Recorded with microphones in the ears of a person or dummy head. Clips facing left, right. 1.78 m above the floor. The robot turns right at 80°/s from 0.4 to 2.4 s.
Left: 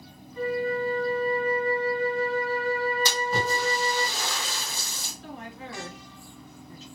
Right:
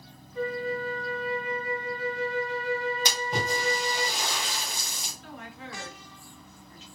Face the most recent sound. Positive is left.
turn(degrees=40)  # may be behind; listen again after turning